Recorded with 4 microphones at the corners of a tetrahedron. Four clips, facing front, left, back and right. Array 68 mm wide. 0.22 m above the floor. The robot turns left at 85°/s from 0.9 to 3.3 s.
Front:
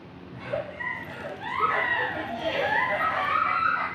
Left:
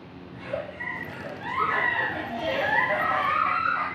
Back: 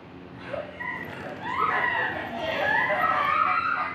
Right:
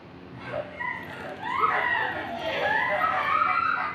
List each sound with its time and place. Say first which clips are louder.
0.3 s a giggle: left 1 dB, front 3 dB; 55° right, 1.8 m; by 3.9 s 105° left, 1.8 m